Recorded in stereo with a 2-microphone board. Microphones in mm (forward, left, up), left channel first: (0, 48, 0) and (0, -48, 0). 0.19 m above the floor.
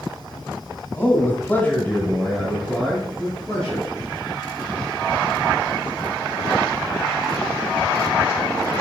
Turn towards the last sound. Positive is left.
turn(degrees=0)  # may be behind; listen again after turning